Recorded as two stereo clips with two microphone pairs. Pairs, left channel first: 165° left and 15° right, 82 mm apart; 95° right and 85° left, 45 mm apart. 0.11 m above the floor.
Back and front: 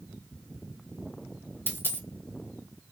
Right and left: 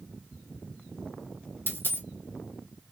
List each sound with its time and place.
1.7 s a dropped coin: 130° right, 0.7 m